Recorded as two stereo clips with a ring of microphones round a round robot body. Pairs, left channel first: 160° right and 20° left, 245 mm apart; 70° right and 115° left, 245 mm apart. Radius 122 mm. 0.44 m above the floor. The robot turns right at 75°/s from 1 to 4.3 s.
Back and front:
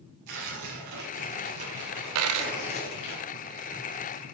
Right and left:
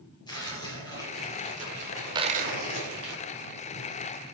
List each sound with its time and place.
0.3 s tearing paper: 5° left, 4 m; by 3.1 s 170° left, 4 m
2.1 s a dropped coin: 40° left, 0.9 m; by 2.5 s 70° left, 0.9 m